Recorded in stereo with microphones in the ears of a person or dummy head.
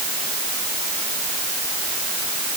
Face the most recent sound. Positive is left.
No sound to turn to.